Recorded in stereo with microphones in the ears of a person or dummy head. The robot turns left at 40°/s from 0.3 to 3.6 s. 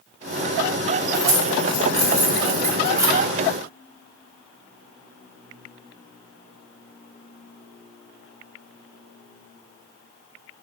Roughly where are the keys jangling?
Right.